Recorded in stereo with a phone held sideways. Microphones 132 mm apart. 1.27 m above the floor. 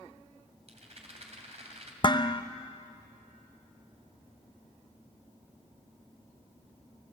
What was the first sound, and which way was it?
A rattle, 55° right (ahead or behind).